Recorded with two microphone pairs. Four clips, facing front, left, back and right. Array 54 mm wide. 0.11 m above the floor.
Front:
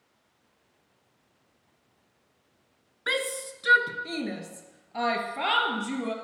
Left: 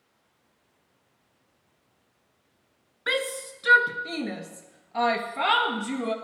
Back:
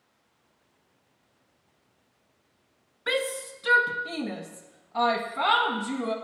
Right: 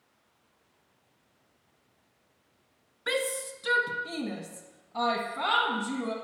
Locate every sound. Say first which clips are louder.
3.1 s a shout: left 2 dB, back 1 dB; 60° left, 1.5 m; by 6.1 s 70° left, 3 m